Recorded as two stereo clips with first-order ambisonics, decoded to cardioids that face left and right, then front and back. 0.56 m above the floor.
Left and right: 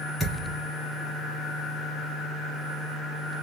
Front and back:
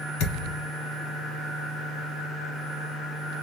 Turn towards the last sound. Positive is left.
turn(degrees=5)